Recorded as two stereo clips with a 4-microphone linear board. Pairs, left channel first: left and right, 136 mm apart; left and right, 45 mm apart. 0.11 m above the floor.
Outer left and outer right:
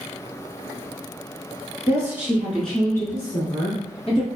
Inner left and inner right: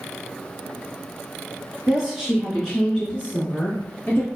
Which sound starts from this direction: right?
A woman speaking, at 1.9 s.